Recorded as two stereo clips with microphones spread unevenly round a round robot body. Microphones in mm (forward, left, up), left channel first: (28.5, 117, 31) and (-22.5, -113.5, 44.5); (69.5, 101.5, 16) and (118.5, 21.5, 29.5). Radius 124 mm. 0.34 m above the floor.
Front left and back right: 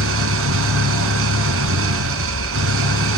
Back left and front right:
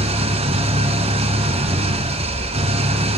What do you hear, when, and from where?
0.0 s an engine running: 70° right, 2 m